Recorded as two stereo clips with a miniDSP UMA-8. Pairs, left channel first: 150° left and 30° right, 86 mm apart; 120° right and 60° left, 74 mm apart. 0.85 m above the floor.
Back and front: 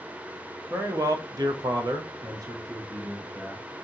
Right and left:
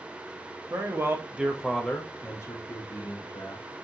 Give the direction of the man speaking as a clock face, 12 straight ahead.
11 o'clock.